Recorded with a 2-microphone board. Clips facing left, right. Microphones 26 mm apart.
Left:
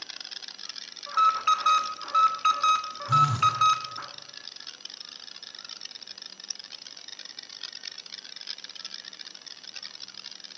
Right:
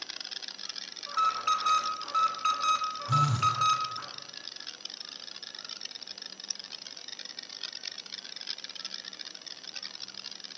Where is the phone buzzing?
5° left (ahead or behind), 1.1 m.